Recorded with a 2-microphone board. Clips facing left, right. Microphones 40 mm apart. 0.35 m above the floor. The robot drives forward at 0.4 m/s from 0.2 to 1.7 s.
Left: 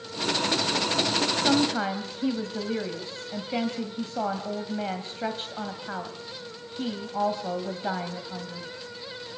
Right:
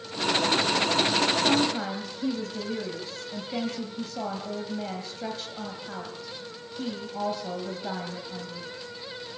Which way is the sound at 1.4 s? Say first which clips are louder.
Left 1 dB; 35° left (ahead or behind).